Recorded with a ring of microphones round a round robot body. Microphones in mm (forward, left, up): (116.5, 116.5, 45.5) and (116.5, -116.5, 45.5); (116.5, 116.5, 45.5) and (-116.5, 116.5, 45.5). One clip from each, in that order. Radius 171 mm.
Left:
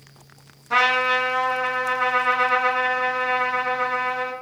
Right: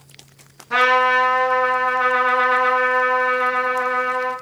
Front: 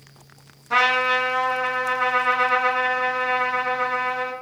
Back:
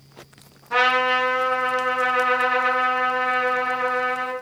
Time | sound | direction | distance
0.7 | a trumpet | 35° left | 4 m